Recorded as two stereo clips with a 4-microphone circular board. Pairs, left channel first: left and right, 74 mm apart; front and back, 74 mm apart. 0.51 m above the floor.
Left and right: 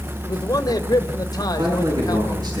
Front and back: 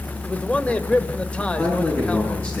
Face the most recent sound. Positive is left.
turn(degrees=-60)